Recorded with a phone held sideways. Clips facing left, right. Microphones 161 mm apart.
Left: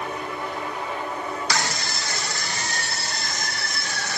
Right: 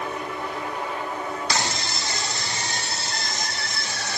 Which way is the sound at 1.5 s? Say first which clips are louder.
Even; 25° right (ahead or behind).